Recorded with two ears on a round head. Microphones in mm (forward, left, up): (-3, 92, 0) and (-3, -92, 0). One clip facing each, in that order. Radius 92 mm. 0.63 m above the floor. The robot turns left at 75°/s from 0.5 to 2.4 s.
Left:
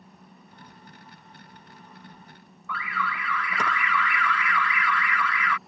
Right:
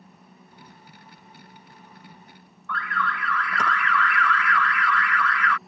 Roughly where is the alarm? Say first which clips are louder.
Right 2 dB; centre.